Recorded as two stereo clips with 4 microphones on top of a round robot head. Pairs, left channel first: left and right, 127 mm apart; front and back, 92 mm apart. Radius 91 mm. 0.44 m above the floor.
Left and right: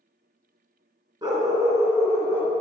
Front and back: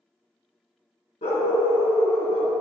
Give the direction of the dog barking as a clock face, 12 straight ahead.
1 o'clock.